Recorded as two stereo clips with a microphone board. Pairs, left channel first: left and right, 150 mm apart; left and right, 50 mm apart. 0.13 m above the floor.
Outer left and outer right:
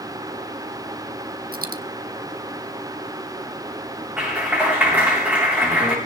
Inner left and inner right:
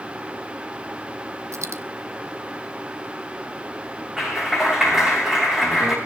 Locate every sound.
1.5 s a dropped coin: 80° right, 1.0 m
4.2 s a clap: 10° right (ahead or behind), 8 m